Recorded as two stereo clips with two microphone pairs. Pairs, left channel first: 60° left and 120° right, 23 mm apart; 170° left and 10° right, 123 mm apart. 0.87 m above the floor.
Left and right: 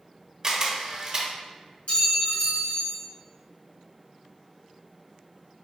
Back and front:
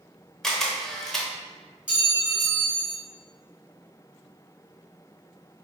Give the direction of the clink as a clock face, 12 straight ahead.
10 o'clock.